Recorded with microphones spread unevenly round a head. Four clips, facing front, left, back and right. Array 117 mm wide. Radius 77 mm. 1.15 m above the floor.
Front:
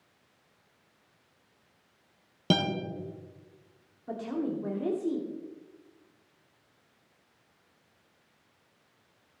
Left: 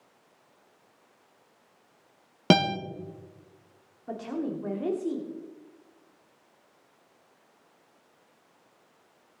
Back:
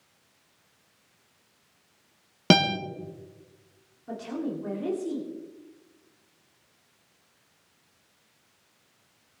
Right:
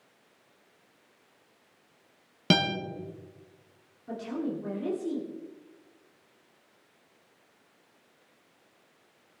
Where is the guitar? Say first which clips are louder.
Left 4 dB, back 6 dB; 115° left, 1.5 m.